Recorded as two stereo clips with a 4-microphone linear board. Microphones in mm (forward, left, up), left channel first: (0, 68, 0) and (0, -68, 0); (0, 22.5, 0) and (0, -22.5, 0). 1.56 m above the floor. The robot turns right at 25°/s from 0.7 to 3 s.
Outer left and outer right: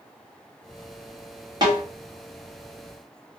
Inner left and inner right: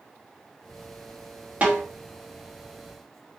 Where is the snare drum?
30° right (ahead or behind), 1.1 m; by 1.8 s 35° right (ahead or behind), 1.1 m.